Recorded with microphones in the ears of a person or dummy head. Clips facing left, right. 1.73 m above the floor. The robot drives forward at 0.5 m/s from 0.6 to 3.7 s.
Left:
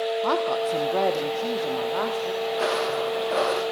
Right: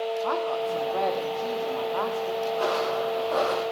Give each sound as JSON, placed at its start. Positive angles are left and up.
{"t": 0.2, "sound": "a woman speaking", "side_deg": 55, "distance_m": 1.2}
{"t": 2.5, "sound": "footsteps", "side_deg": 40, "distance_m": 5.5}